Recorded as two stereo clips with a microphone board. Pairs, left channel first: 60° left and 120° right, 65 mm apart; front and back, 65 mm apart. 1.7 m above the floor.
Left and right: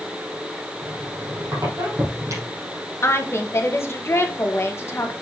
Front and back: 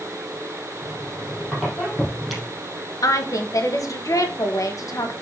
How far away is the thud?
I don't hear a thud.